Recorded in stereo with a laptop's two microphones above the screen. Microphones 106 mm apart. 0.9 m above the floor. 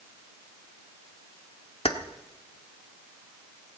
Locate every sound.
1.9 s keys jangling: 70° left (ahead or behind), 1.2 m